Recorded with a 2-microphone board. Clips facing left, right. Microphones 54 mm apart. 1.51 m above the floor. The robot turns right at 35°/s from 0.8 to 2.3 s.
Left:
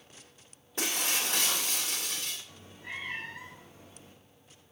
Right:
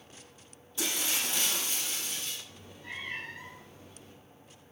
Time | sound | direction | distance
0.8 | breaking glass | 60° left | 2.5 m
2.5 | a cat meowing | 20° left (ahead or behind) | 3 m